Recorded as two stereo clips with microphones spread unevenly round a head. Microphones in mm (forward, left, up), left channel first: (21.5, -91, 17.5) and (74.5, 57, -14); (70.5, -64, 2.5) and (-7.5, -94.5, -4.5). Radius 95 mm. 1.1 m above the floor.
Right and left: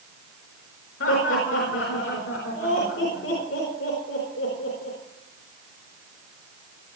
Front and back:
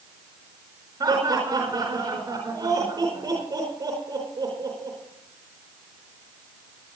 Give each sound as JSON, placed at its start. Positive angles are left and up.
{"t": 1.0, "sound": "laughter", "azimuth_deg": -120, "distance_m": 4.5}